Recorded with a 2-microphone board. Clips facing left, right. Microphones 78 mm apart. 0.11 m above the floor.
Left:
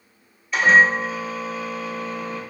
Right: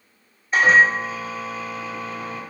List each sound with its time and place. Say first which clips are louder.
0.5 s a microwave: even; 35° right (ahead or behind), 1.8 m